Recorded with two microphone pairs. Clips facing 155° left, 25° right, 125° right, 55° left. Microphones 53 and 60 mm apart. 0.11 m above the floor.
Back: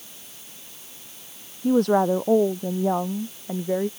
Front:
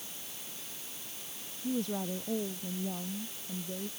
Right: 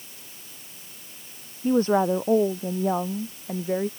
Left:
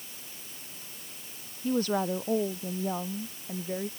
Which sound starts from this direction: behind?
A woman speaking, at 1.6 s.